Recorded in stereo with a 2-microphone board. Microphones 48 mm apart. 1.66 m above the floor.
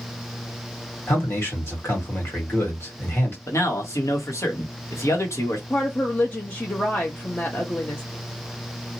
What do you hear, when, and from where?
1.1 s a man speaking: 60° left (ahead or behind), 1.6 m
3.5 s a man speaking: 80° left, 1.2 m
5.7 s a woman speaking: 40° left (ahead or behind), 0.7 m